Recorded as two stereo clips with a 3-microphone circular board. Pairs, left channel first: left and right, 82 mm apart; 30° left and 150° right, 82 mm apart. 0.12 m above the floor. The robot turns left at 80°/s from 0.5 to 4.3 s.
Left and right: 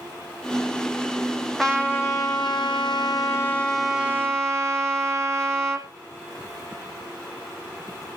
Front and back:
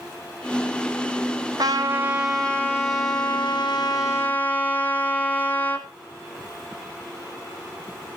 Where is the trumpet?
Straight behind, 1.6 m; by 5.9 s 40° right, 1.6 m.